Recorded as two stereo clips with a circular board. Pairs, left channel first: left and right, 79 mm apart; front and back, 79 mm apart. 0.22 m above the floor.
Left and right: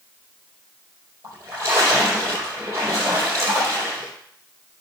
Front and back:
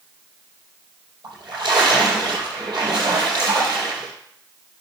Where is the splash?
145° right, 5 m.